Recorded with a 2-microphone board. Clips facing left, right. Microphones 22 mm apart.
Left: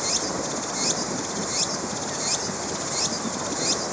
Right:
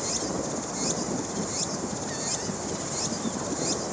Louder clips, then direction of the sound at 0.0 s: Left 3 dB; 40° left (ahead or behind).